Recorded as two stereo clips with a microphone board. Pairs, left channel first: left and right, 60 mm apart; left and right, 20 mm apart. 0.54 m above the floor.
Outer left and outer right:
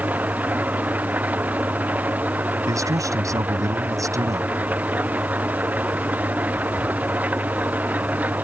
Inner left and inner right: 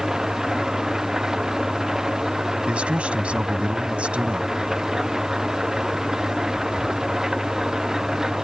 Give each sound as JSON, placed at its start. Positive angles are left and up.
{"t": 0.0, "sound": "an engine running", "side_deg": -25}
{"t": 2.7, "sound": "a man speaking", "side_deg": -65}